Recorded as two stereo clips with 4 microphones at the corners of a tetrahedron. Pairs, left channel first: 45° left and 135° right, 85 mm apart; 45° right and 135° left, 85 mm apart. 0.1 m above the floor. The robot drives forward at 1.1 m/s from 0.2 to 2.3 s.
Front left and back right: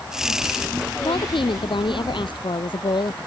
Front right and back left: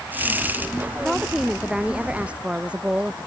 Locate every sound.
1.0 s a woman speaking: 45° left; by 3.2 s 60° left